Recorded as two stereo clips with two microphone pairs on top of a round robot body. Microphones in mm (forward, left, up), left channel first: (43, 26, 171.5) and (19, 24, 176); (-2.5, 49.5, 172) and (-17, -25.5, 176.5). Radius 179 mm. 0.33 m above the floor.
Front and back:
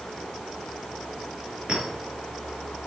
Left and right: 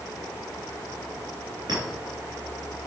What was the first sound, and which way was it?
A clink, 130° right.